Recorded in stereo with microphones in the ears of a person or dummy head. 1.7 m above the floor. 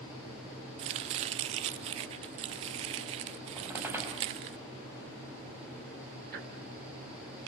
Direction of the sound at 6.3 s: 60° right (ahead or behind).